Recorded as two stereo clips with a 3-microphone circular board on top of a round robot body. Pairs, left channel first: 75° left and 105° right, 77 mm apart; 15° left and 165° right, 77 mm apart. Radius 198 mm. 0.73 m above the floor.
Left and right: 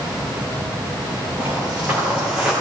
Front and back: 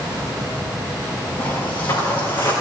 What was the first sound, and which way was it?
Footsteps, 40° right.